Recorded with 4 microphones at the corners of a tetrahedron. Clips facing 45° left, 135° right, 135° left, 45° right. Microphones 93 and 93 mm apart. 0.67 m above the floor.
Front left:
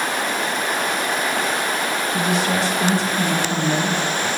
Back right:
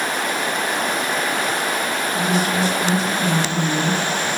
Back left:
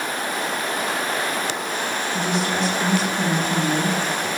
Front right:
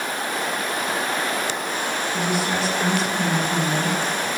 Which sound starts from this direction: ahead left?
A woman speaking, at 2.1 s.